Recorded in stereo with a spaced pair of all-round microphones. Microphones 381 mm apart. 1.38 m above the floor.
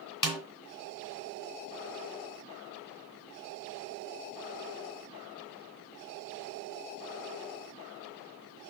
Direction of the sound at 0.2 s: 55° left (ahead or behind).